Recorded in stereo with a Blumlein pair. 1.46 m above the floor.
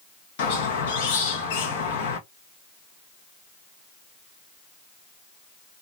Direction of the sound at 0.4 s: 50° left.